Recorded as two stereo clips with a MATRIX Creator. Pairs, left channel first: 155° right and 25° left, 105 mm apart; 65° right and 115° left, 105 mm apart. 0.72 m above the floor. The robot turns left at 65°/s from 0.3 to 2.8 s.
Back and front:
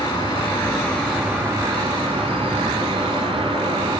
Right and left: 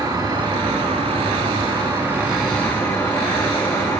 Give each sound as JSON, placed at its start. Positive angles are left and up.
{"t": 0.0, "sound": "an insect", "azimuth_deg": 160, "distance_m": 4.0}